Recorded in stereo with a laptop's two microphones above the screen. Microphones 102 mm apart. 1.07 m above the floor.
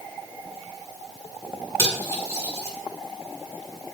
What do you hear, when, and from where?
1.8 s cutlery clinking: 30° left (ahead or behind), 6.5 m